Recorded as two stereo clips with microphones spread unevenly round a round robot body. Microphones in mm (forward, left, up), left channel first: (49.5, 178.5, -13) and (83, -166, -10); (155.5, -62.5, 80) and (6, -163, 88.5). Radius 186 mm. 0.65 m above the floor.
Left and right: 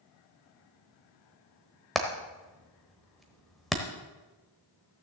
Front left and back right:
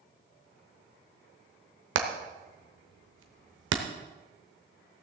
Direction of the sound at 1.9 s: 175° right.